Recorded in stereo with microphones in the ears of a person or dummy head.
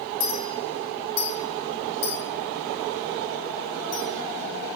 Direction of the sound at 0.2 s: 60° left (ahead or behind).